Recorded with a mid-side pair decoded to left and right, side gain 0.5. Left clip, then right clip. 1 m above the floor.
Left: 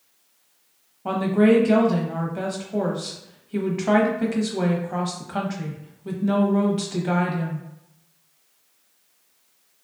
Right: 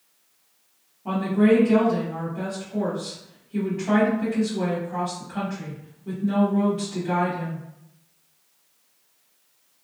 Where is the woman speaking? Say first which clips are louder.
Left 2 dB; 60° left, 1.0 m.